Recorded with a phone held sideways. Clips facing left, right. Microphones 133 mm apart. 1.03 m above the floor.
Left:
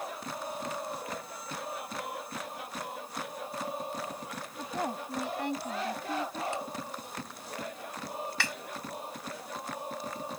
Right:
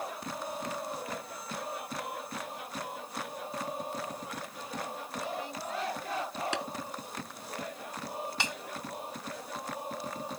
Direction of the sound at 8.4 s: 20° right (ahead or behind).